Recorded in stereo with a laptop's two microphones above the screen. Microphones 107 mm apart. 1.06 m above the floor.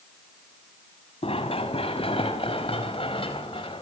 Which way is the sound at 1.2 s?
60° left (ahead or behind).